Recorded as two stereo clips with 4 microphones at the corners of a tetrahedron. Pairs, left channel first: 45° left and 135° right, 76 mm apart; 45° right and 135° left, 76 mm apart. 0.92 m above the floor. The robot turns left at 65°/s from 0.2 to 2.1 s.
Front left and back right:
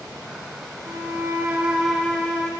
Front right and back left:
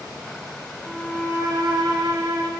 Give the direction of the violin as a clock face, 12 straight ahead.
5 o'clock.